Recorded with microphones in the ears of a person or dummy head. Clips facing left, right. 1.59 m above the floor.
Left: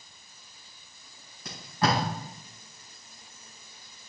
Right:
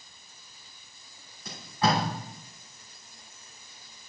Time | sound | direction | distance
1.4 | tape being pulled | 60° left (ahead or behind) | 4 m